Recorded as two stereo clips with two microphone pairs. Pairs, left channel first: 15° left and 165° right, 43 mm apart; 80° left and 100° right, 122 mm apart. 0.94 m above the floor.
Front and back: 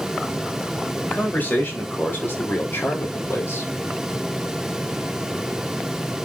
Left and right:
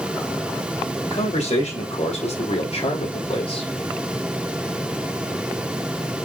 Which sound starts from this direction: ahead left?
A man speaking, at 1.1 s.